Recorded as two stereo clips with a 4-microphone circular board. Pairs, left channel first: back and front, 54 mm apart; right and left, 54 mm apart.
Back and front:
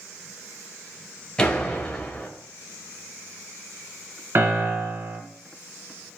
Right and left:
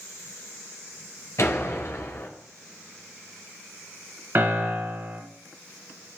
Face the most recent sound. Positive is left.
turn(degrees=40)